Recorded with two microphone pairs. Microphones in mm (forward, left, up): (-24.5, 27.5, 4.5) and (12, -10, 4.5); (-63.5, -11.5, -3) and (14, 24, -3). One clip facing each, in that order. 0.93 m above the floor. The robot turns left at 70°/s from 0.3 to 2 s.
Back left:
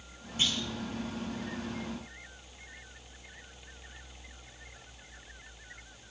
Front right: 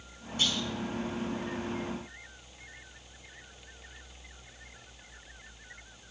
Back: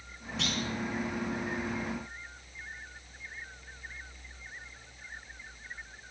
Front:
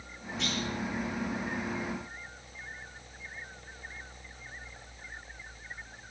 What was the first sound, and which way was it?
A clunk, 155° right.